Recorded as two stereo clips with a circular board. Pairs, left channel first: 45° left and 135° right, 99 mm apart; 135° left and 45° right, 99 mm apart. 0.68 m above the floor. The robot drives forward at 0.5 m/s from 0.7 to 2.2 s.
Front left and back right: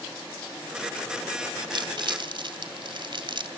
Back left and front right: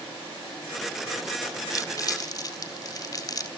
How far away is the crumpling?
About 2.0 m.